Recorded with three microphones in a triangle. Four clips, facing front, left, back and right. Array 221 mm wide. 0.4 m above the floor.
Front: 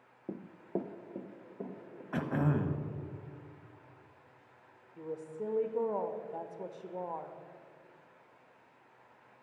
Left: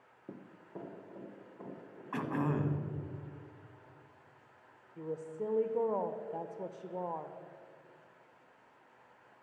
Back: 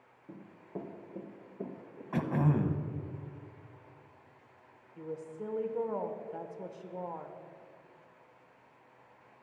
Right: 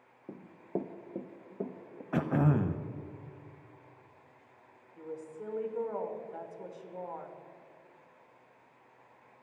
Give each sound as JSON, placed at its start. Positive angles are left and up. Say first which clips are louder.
{"t": 0.3, "sound": "running footsteps", "louder": "right 10 dB, front 7 dB", "azimuth_deg": 0, "distance_m": 0.9}
{"t": 2.1, "sound": "throat clearing", "louder": "right 5 dB, back 2 dB", "azimuth_deg": -100, "distance_m": 0.7}
{"t": 5.0, "sound": "a woman speaking", "louder": "left 4 dB, front 1 dB", "azimuth_deg": 65, "distance_m": 0.8}